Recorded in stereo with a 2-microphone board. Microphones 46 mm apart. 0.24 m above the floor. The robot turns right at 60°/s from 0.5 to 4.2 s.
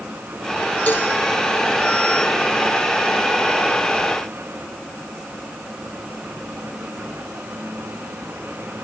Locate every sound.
0.9 s a cowbell: 40° left (ahead or behind), 7 m; by 1.1 s 25° left (ahead or behind), 7 m